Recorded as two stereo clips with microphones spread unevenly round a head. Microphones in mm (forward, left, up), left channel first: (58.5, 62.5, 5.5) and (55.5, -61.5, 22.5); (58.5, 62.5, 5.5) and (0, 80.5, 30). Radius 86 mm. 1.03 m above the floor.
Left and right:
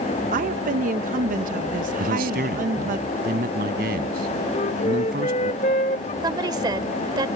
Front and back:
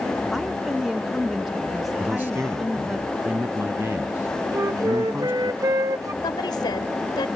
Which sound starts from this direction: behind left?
A flute, at 4.5 s.